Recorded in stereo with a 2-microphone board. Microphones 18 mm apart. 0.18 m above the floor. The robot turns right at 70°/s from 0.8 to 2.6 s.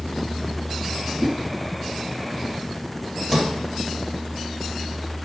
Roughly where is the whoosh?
Left.